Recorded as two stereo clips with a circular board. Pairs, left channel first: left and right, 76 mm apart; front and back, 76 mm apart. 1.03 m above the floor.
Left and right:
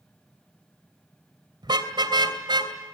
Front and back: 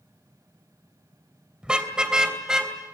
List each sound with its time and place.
1.6 s a car horn: 100° right, 2.5 m